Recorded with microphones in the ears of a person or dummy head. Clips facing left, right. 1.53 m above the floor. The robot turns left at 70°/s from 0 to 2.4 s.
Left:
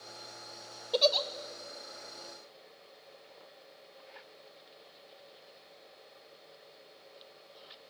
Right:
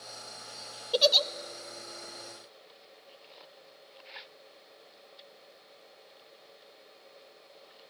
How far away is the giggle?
About 0.7 m.